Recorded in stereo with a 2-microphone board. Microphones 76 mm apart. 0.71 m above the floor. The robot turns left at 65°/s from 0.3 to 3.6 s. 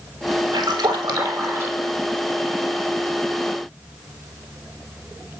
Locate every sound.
0.5 s a splash: 80° right, 4 m; by 1.9 s 170° right, 4 m